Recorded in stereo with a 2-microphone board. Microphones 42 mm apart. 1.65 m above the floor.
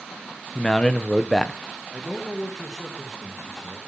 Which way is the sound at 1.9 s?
10° right (ahead or behind).